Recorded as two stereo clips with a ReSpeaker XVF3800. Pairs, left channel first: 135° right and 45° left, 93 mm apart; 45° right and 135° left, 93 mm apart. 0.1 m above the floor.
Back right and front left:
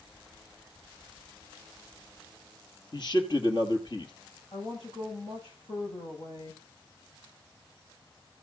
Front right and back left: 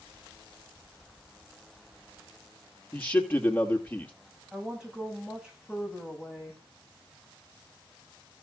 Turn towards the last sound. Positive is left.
turn(degrees=-145)